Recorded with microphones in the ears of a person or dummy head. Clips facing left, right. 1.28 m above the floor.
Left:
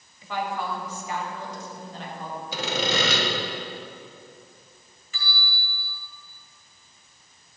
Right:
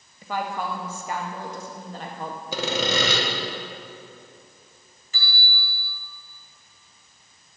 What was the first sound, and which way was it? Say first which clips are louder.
A woman speaking: right 1 dB; 45° right (ahead or behind).